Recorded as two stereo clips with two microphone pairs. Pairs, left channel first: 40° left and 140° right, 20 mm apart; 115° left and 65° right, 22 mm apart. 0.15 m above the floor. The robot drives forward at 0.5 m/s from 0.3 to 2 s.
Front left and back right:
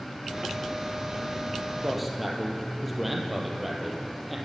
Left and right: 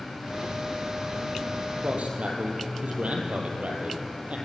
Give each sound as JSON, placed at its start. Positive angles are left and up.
{"t": 1.8, "sound": "a man speaking", "azimuth_deg": -50, "distance_m": 4.5}